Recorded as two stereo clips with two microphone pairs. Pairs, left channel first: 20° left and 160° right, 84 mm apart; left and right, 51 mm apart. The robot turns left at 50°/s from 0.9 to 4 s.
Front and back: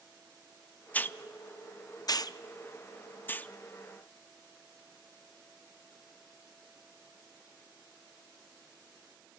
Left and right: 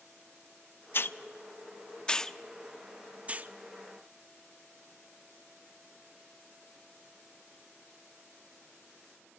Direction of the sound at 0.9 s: 80° left.